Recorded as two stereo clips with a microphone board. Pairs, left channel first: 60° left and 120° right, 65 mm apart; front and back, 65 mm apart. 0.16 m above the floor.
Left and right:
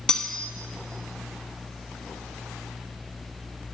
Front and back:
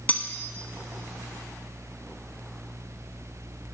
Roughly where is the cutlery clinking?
Ahead.